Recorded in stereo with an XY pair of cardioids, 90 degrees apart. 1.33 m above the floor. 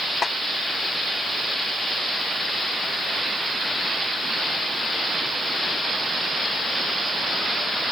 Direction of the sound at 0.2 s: 35° left.